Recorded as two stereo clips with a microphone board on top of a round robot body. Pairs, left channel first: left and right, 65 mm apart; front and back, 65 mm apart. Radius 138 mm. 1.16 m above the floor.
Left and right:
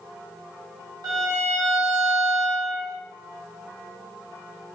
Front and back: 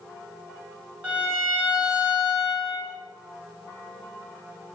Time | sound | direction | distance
1.0 | a violin | 110° right | 0.8 m